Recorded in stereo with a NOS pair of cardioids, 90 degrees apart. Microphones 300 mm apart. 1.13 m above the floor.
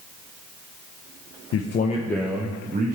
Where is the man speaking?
55° left, 0.6 m; by 3.0 s 30° right, 1.1 m.